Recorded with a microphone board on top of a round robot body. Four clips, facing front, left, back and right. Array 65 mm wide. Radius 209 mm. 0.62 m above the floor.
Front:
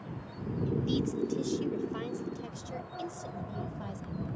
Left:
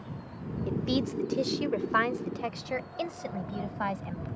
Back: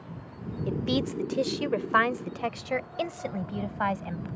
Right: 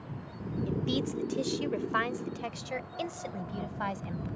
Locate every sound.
0.7 s a woman speaking: 165° left; by 4.3 s 175° left